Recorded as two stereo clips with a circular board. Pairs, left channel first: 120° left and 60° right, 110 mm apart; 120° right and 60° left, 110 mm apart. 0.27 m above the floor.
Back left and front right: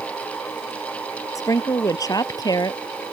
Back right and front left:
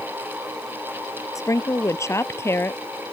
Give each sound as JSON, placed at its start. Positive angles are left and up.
{"t": 1.4, "sound": "a woman speaking", "azimuth_deg": 180}